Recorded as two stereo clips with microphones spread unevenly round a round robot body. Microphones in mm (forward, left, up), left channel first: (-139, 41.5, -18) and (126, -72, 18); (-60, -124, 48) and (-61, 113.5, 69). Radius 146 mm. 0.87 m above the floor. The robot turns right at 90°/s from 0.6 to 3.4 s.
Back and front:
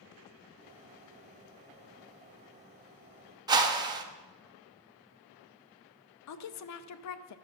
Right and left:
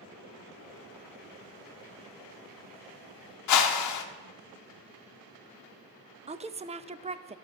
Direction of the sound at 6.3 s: 155° left.